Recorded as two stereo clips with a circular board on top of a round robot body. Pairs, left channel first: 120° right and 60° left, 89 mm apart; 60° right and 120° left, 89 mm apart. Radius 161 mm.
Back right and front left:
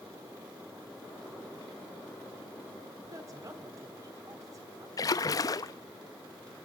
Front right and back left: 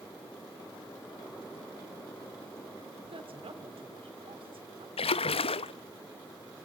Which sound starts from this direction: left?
A woman speaking, at 3.0 s.